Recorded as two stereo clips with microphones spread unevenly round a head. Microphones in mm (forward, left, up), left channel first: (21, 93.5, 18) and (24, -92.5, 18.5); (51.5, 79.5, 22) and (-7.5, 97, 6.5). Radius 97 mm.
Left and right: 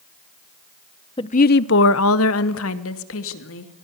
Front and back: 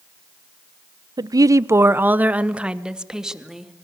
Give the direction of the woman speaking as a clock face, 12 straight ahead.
7 o'clock.